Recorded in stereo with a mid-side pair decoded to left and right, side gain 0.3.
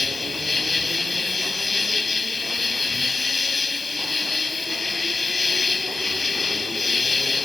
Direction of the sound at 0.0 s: 40° left.